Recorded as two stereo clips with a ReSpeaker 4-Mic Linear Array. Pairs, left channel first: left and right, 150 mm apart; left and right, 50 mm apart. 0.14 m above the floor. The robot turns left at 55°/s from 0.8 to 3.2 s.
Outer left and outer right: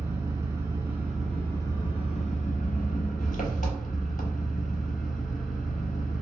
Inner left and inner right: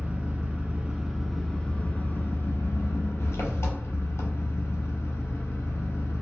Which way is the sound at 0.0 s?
160° right.